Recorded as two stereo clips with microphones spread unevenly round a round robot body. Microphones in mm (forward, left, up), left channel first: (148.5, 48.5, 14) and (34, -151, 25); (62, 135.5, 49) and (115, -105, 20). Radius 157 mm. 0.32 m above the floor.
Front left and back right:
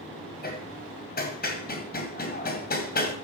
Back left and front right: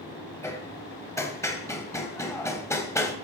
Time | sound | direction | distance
0.4 | hammering | 20° left | 2 m